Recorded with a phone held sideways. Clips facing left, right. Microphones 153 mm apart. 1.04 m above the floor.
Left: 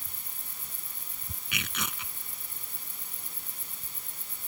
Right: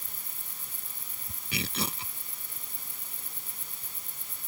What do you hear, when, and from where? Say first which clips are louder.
1.5 s tearing paper: right 5 dB; 35° right (ahead or behind)